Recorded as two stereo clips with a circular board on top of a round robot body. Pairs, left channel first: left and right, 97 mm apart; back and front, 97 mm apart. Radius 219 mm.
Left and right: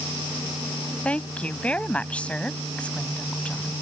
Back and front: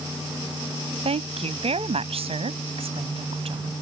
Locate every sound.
1.1 s a woman speaking: 10° left